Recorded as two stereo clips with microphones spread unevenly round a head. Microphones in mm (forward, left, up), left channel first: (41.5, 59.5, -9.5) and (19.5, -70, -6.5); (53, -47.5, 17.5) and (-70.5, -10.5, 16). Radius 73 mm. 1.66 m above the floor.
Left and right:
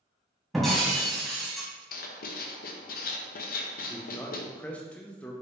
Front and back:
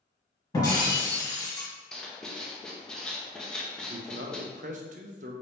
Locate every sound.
0.5 s breaking glass: 10° right, 1.6 m
1.9 s writing: 70° left, 0.5 m
3.9 s a man speaking: 160° left, 0.6 m